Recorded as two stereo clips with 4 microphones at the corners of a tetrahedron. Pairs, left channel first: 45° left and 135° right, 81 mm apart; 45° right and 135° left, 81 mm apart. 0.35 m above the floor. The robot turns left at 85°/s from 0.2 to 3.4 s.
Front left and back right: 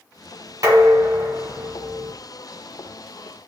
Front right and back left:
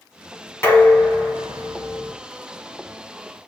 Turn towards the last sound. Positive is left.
turn(degrees=20)